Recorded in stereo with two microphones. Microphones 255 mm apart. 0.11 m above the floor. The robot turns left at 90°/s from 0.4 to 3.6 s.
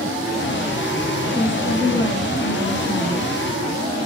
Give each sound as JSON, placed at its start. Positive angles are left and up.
{"t": 1.4, "sound": "a woman speaking", "azimuth_deg": 150, "distance_m": 2.5}